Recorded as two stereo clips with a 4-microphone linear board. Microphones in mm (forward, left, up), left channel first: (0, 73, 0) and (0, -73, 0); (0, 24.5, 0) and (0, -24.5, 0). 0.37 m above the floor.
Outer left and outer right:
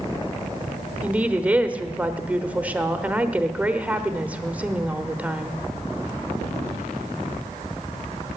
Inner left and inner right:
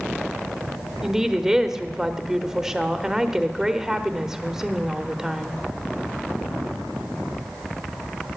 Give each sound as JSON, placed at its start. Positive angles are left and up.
{"t": 1.0, "sound": "a woman speaking", "side_deg": -10, "distance_m": 0.8}